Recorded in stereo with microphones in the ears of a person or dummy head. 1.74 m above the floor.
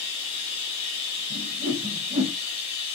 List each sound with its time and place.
0.0 s running water: 35° left (ahead or behind), 1.4 m
1.3 s a whoosh: 35° right (ahead or behind), 1.2 m